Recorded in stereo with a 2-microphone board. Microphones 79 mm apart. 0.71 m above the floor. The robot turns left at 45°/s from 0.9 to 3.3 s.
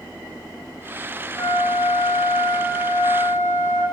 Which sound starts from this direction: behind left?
A flute, at 1.4 s.